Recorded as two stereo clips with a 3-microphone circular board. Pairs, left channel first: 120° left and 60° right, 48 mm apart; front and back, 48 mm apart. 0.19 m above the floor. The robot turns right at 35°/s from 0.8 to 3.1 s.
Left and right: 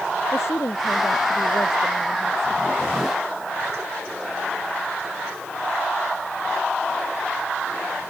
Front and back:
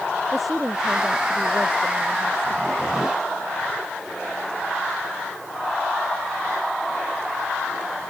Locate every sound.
0.3 s a woman speaking: 95° left; by 2.9 s 165° left